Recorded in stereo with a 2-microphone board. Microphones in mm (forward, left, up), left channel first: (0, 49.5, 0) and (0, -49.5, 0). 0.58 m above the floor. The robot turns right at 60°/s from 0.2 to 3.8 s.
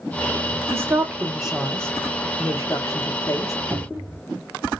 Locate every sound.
0.7 s a woman speaking: 25° right (ahead or behind), 0.8 m; by 3.5 s 30° left (ahead or behind), 0.8 m
3.7 s a cupboard door: 20° right (ahead or behind), 1.0 m; by 4.2 s 15° right (ahead or behind), 1.0 m